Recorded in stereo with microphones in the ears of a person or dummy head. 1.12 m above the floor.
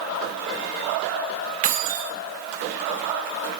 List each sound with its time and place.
1.6 s keys jangling: 45° right (ahead or behind), 1.3 m